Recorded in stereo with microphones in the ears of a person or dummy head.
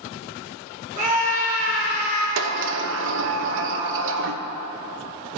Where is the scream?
45° right (ahead or behind), 4.5 m.